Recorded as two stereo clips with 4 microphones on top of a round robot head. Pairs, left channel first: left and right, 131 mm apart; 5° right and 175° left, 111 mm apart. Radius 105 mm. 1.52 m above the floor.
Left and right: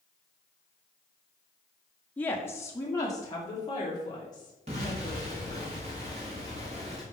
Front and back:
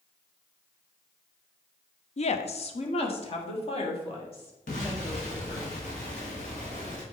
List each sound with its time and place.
2.2 s a woman speaking: 10° left, 0.6 m; by 5.7 s 25° left, 3.5 m
4.7 s an explosion: 35° right, 1.3 m